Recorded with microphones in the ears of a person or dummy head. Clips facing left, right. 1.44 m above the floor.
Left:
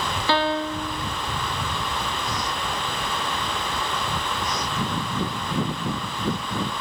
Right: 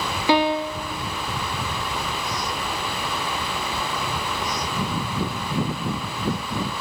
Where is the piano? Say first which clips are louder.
Right 4 dB; 10° right (ahead or behind), 0.6 m.